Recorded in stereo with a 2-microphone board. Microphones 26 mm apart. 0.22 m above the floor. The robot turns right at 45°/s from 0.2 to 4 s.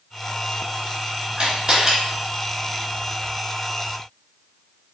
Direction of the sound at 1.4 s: 50° right (ahead or behind).